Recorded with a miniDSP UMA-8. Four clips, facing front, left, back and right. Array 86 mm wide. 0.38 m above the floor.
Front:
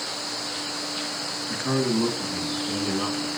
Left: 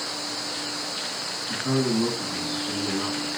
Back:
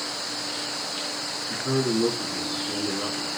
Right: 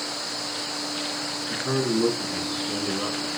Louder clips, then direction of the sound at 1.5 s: Left 1 dB, even; 5° left.